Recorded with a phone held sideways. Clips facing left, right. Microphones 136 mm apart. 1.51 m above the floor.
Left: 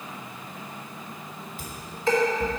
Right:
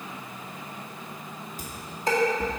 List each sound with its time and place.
1.6 s dishes clattering: 40° right (ahead or behind), 2.0 m